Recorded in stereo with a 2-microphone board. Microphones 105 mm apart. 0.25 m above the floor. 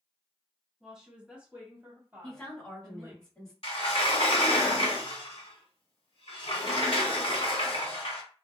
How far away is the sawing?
I don't hear sawing.